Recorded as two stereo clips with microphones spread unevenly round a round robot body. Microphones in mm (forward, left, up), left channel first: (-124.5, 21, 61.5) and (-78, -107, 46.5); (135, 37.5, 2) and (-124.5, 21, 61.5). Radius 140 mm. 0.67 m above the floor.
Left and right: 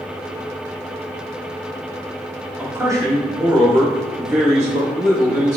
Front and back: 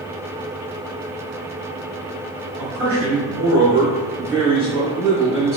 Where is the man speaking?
145° right, 1.5 m; by 5.6 s 95° right, 3 m.